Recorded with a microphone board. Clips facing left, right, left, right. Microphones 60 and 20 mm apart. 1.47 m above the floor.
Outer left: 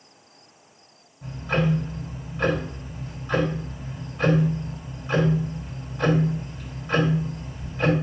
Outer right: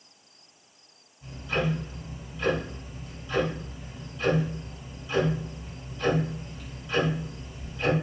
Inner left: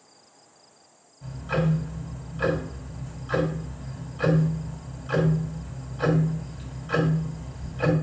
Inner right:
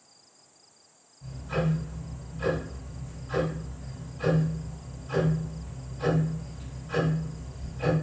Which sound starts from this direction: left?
Ticking, at 1.2 s.